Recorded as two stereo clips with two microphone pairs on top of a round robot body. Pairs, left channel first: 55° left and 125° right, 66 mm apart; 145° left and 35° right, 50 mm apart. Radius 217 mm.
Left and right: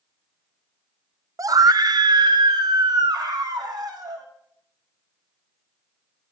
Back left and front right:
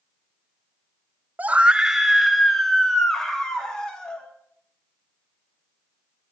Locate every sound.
1.4 s a scream: 90° right, 0.7 m; by 4.3 s 140° right, 2 m